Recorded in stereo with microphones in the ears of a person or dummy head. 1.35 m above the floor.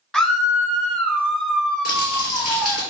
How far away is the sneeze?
I don't hear a sneeze.